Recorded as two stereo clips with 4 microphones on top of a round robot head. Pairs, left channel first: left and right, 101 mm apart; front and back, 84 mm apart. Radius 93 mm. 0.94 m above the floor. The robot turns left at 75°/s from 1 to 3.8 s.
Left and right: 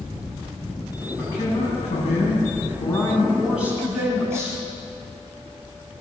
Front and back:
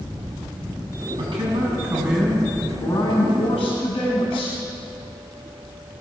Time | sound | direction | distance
1.2 | a man speaking | 170° left | 6.5 m